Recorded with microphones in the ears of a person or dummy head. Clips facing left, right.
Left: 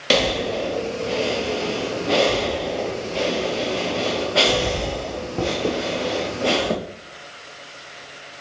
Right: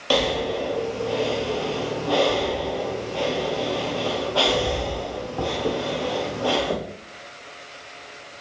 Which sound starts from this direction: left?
Breathing, at 0.1 s.